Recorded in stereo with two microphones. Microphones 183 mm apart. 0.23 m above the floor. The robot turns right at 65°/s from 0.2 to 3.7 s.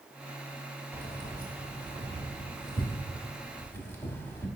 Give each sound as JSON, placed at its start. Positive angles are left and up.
{"t": 0.9, "sound": "keys jangling", "side_deg": -15, "distance_m": 0.7}